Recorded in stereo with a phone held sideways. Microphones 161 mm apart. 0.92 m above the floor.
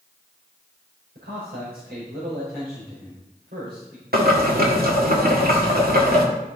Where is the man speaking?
80° right, 4 m.